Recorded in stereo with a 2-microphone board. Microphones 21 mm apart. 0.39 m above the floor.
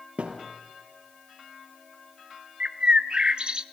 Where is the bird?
45° right (ahead or behind), 0.9 m.